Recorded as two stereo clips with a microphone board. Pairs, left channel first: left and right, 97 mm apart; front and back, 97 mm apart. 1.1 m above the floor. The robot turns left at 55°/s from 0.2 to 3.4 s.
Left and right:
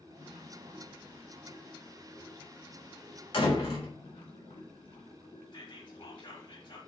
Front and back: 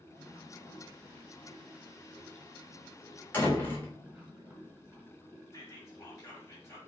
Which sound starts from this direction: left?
A door slam, at 3.3 s.